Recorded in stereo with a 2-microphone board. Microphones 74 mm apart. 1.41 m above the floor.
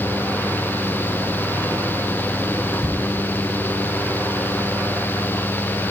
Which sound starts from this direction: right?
Ticking, at 2.8 s.